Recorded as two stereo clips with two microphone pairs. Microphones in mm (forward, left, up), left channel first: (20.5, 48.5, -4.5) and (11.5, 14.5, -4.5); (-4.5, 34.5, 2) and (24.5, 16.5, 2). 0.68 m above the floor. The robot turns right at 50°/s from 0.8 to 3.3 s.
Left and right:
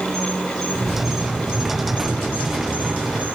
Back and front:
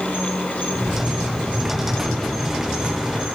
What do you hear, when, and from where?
0.0 s an insect: 165° left, 1.1 m; by 3.4 s 70° right, 1.1 m